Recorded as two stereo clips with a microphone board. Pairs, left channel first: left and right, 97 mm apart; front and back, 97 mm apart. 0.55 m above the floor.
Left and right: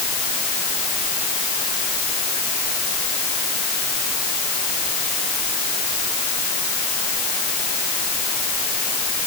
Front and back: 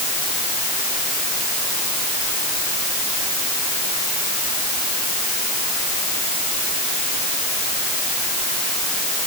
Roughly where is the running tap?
I don't hear a running tap.